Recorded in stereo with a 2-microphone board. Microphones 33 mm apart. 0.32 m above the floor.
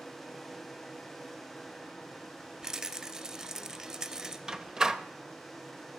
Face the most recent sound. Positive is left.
turn(degrees=-20)  # may be behind; listen again after turning